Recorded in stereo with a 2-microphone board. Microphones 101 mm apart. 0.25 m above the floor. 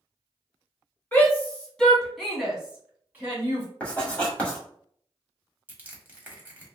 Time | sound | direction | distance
1.1 | a shout | 20° left (ahead or behind) | 1.8 m
3.8 | writing | 15° left (ahead or behind) | 1.5 m
5.7 | crushing | 20° right (ahead or behind) | 1.0 m